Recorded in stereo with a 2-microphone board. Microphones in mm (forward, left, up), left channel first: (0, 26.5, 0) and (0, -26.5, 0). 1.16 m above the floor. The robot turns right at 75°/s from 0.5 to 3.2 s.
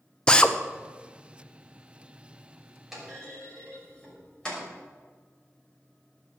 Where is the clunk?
5° right (ahead or behind), 6 m; by 4.6 s 15° left (ahead or behind), 6 m.